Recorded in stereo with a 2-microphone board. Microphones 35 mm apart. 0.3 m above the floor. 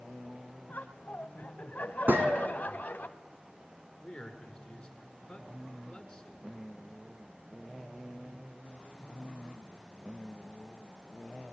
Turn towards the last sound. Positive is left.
turn(degrees=15)  # may be behind; listen again after turning